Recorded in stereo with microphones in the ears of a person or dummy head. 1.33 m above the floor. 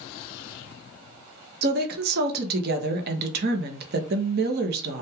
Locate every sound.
1.6 s a woman speaking: 50° right (ahead or behind), 0.6 m